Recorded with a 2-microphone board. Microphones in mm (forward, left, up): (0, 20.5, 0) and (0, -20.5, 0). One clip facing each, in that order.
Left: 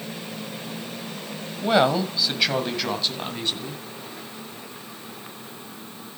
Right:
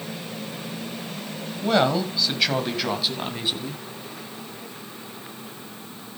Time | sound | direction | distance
1.6 | a woman speaking | 10° left (ahead or behind) | 2 m